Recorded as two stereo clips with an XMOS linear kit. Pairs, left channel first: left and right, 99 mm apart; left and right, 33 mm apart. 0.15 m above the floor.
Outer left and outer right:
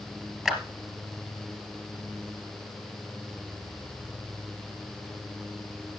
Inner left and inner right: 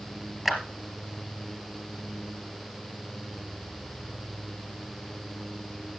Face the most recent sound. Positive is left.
turn(degrees=0)  # may be behind; listen again after turning